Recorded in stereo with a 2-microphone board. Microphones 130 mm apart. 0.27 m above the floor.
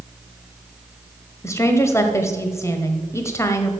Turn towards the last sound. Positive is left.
turn(degrees=20)  # may be behind; listen again after turning